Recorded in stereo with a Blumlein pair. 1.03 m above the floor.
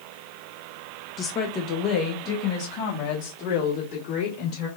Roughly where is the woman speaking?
Ahead.